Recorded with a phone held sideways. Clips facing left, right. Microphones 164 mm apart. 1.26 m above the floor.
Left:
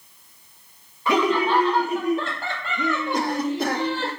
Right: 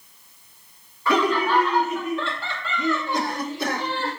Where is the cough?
50° left (ahead or behind), 3.5 m.